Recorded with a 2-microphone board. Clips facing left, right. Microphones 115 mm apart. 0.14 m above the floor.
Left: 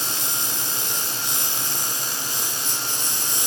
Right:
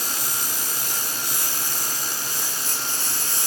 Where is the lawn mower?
20° left (ahead or behind).